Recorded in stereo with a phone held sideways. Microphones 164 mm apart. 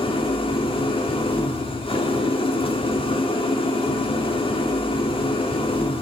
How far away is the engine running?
About 1.5 m.